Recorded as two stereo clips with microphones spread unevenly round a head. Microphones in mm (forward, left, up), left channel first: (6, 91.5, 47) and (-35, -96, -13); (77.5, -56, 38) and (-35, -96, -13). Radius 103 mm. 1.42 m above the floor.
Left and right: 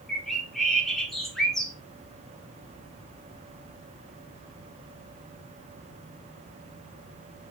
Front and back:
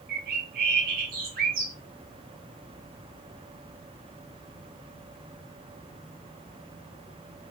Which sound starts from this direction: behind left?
A bird, at 0.1 s.